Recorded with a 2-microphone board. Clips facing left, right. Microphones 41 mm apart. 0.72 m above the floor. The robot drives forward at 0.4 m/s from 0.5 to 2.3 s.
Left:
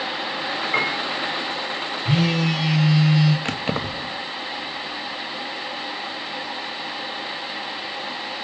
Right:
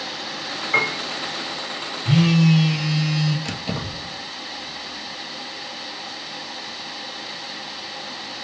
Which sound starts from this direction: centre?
A piano, at 0.7 s.